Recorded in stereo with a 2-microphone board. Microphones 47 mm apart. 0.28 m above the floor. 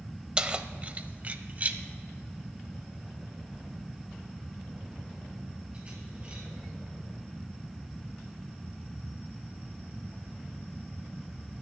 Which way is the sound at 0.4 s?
20° right (ahead or behind).